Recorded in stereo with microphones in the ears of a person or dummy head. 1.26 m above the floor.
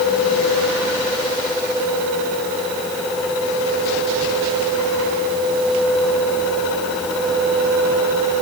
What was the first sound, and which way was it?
Only background noise.